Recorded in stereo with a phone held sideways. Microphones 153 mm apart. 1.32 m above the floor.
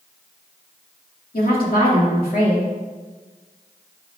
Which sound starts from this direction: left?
A woman speaking, at 1.3 s.